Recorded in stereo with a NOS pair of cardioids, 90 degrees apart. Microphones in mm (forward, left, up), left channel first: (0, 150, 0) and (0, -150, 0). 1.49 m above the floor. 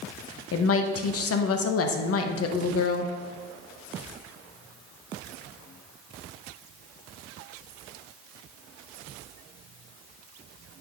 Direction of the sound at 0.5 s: 55° left.